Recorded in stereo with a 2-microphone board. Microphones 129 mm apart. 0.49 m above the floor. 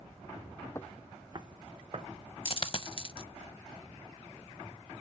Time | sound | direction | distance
0.8 | footsteps | 25° left (ahead or behind) | 0.5 m
2.5 | a dropped coin | 45° left (ahead or behind) | 0.6 m